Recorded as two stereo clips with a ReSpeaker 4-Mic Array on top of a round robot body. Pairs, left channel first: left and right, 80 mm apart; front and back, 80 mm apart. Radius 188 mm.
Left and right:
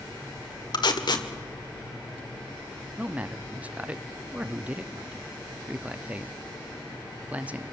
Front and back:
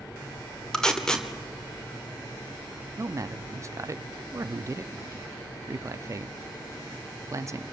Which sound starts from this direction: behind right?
A man speaking, at 3.0 s.